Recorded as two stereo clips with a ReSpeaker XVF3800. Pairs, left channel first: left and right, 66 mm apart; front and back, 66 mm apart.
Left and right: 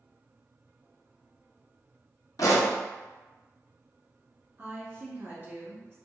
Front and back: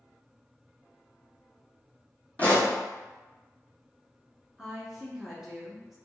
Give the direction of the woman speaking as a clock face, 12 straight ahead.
3 o'clock.